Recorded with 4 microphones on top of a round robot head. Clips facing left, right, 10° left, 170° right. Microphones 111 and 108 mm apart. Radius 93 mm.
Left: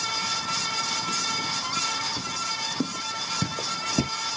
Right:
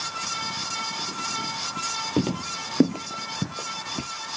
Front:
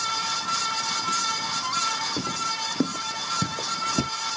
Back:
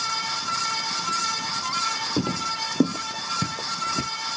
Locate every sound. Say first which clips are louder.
2.2 s footsteps: right 8 dB, back 3 dB; 110° right; by 4.1 s 65° left